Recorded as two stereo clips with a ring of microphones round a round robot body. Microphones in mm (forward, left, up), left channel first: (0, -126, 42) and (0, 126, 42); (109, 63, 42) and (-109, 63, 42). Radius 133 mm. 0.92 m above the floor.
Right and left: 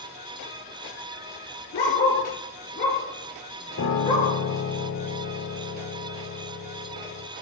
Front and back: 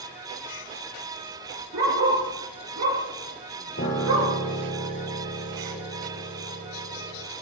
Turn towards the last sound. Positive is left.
turn(degrees=-50)